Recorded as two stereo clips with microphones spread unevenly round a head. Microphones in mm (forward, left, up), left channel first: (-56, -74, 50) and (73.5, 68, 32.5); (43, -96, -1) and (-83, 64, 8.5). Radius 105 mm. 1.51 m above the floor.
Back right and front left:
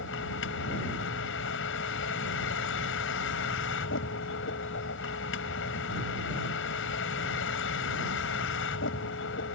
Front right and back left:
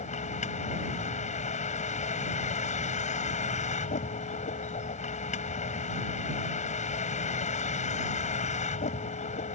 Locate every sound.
0.0 s a vehicle: 110° right